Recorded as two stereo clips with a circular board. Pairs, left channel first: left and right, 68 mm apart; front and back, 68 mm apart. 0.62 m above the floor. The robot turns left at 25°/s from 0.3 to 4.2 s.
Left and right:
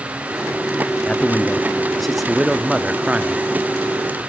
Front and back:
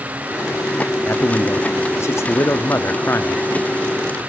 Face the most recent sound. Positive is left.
turn(degrees=-55)